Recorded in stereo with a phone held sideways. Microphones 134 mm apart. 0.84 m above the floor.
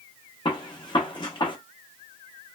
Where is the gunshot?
35° left (ahead or behind), 0.7 m.